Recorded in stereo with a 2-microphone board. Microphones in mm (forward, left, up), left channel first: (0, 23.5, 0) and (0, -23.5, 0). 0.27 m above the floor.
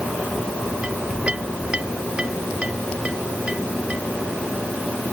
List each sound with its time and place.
0.8 s a clink: 25° right (ahead or behind)